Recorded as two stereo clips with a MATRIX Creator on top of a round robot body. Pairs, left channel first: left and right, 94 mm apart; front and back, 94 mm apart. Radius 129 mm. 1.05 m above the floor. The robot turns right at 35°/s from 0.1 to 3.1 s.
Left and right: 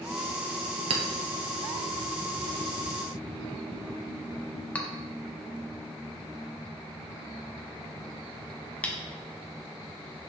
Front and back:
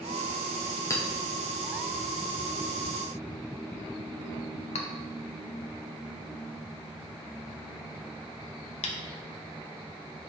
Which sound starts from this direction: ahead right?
A clink, at 0.9 s.